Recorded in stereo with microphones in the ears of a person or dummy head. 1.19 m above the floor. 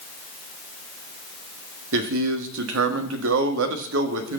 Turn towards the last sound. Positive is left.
turn(degrees=-65)  # may be behind; listen again after turning